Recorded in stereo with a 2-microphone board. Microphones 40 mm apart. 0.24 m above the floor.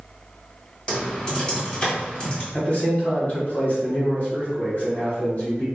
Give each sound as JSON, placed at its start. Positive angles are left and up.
{"t": 0.9, "sound": "typing on a keyboard", "side_deg": 25, "distance_m": 1.4}
{"t": 2.5, "sound": "a man speaking", "side_deg": 35, "distance_m": 1.6}